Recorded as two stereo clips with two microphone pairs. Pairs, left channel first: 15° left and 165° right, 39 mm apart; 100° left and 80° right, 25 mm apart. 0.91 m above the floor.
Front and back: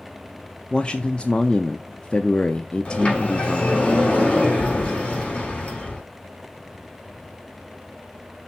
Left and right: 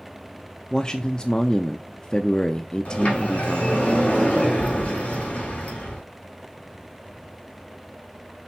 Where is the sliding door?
65° left, 4 m.